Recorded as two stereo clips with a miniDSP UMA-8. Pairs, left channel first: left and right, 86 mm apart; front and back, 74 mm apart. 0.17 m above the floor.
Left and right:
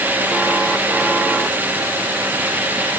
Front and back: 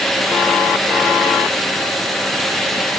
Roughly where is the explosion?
No explosion in this recording.